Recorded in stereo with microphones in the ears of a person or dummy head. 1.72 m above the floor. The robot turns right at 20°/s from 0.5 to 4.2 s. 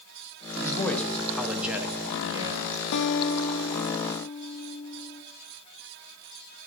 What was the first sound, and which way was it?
A man speaking, 160° left.